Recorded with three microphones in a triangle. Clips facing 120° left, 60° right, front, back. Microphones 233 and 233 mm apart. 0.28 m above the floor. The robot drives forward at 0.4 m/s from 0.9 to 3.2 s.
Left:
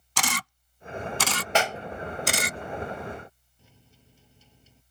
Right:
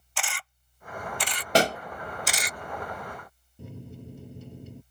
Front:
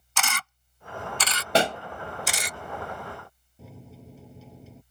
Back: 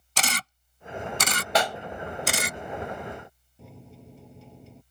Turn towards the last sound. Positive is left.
turn(degrees=-90)